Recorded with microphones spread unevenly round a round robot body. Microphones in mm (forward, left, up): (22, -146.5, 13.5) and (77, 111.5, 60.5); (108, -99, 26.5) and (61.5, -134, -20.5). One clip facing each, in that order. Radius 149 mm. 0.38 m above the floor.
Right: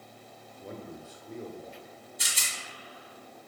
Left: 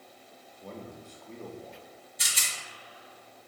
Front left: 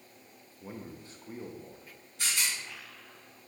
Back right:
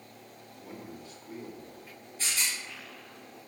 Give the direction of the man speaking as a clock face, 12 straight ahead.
2 o'clock.